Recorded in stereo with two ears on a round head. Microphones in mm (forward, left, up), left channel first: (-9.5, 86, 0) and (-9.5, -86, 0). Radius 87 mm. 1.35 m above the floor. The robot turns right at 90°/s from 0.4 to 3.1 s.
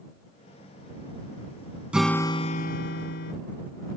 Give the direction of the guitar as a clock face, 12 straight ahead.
12 o'clock.